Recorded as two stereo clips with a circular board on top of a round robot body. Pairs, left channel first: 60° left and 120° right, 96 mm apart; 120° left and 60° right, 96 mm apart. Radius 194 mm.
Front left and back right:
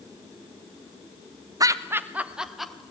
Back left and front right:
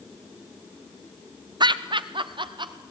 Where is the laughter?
80° right, 1.1 m; by 2.8 s 25° right, 1.6 m.